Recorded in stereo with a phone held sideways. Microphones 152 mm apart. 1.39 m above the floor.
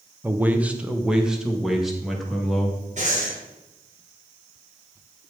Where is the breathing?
50° right (ahead or behind), 2.5 m.